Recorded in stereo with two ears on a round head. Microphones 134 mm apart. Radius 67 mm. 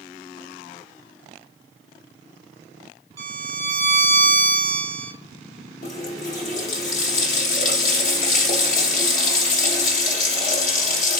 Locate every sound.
3.2 s a violin: 20° right (ahead or behind), 1.1 m
5.8 s a running tap: 55° left (ahead or behind), 0.8 m